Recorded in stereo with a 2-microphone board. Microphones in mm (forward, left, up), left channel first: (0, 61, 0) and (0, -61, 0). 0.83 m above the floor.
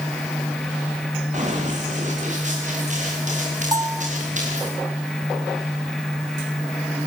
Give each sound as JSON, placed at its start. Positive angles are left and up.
{"t": 1.3, "sound": "running footsteps", "side_deg": -75, "distance_m": 9.5}
{"t": 3.7, "sound": "a bell", "side_deg": -30, "distance_m": 1.1}